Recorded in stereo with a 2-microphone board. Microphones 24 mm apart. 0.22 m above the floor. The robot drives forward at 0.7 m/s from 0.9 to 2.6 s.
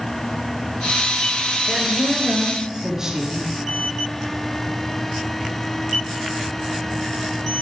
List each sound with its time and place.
1.7 s a woman speaking: 30° right (ahead or behind), 3.5 m; by 3.5 s 25° right (ahead or behind), 4.5 m